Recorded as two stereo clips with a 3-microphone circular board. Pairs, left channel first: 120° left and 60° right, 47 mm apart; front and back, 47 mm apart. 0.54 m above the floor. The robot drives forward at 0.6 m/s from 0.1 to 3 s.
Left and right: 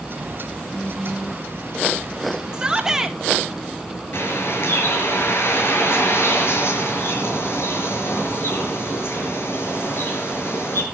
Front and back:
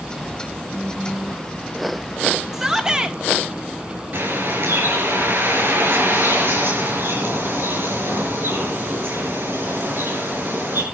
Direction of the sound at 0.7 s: 80° left.